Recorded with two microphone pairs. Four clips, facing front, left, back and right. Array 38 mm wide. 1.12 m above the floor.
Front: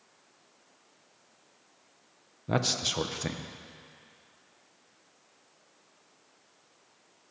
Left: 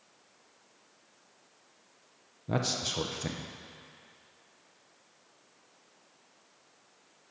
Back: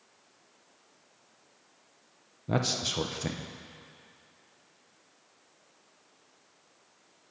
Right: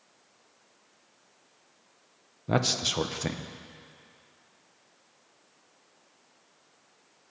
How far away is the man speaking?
About 0.7 m.